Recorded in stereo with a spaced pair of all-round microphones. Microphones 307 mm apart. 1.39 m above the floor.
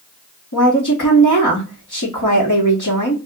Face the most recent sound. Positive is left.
turn(degrees=75)  # may be behind; listen again after turning